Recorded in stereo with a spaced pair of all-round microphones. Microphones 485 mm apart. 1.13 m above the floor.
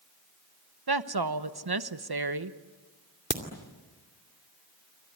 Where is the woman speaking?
55° right (ahead or behind), 1.0 m.